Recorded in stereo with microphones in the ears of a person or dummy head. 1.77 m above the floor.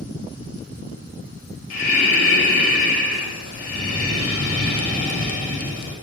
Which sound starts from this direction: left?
Breathing, at 1.7 s.